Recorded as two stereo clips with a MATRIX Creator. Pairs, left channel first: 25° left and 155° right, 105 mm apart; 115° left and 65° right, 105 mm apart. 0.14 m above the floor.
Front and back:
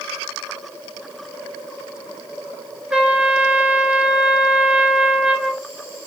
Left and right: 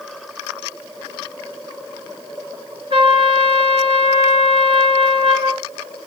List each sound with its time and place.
2.9 s a trumpet: 75° right, 0.8 m